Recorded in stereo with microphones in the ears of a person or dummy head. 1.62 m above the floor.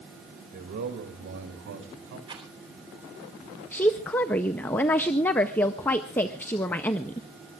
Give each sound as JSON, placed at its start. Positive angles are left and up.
{"t": 0.5, "sound": "a man speaking", "side_deg": -45, "distance_m": 2.0}
{"t": 2.3, "sound": "a rattle", "side_deg": -25, "distance_m": 3.5}
{"t": 3.7, "sound": "a woman speaking", "side_deg": 10, "distance_m": 0.5}